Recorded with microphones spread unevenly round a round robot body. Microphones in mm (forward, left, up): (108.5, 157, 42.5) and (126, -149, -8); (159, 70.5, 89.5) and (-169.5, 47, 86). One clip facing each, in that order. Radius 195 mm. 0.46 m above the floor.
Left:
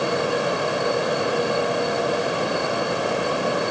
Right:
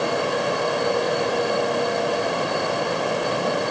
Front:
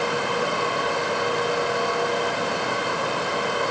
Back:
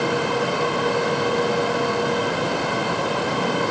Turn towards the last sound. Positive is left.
No sound to turn to.